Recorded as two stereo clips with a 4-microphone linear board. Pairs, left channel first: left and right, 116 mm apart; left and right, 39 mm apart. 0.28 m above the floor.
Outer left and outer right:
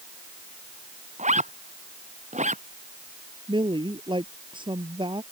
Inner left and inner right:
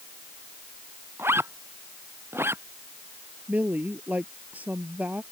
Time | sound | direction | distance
1.2 | a zipper | 90° right | ?
3.5 | a woman speaking | 45° right (ahead or behind) | ?